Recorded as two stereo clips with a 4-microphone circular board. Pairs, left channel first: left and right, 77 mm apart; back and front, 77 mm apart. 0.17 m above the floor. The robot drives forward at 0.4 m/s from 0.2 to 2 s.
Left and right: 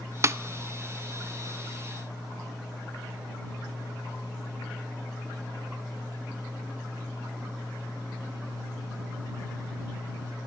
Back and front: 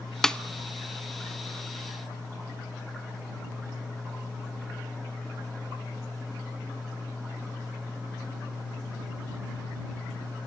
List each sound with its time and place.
0.2 s a snare drum: 100° right, 0.6 m; by 0.4 s 110° right, 0.6 m